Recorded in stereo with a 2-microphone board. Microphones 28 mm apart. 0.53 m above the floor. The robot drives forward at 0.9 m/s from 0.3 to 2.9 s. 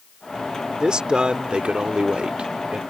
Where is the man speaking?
30° right (ahead or behind); by 2.8 s 35° right (ahead or behind).